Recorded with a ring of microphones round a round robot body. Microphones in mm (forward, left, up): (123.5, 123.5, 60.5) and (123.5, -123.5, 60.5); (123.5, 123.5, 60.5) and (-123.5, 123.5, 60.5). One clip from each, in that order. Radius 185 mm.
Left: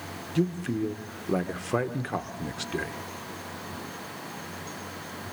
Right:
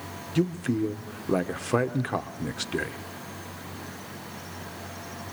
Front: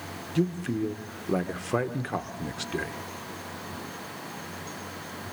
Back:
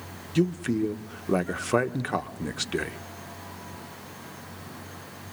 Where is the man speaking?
165° right, 1.1 m.